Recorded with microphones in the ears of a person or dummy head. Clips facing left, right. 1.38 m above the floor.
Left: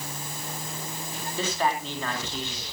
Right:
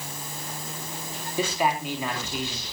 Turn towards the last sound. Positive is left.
turn(degrees=-10)  # may be behind; listen again after turning